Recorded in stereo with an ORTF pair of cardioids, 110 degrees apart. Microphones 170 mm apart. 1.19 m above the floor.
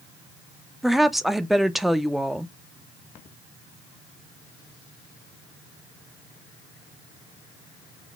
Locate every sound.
0.8 s a woman speaking: straight ahead, 0.6 m